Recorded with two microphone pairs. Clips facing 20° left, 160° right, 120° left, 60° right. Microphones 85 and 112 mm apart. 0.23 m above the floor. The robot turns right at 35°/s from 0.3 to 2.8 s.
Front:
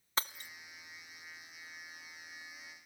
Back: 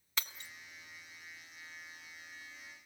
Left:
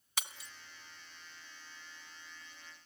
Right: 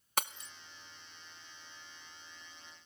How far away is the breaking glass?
About 0.7 m.